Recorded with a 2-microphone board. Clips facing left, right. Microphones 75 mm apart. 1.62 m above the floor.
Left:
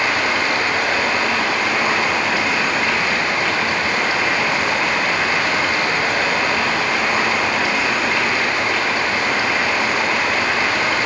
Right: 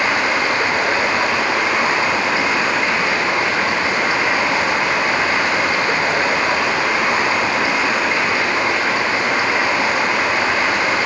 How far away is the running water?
About 4.5 m.